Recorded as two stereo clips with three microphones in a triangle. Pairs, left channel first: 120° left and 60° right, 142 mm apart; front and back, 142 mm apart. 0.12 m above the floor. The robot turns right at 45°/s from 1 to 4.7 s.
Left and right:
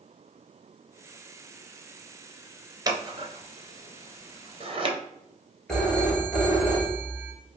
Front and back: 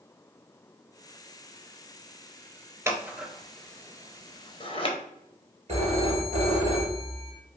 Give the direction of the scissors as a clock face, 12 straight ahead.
4 o'clock.